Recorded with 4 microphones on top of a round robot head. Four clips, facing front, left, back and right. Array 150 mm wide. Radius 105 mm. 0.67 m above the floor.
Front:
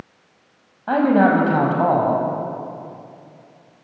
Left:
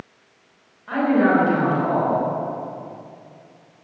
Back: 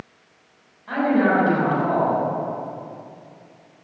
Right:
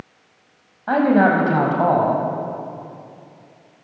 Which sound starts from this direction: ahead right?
A man speaking, at 0.9 s.